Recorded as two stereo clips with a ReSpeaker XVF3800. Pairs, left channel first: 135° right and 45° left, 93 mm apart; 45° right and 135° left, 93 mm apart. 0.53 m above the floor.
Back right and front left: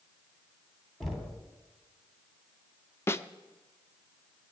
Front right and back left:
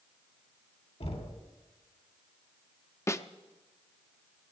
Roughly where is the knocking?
Ahead right.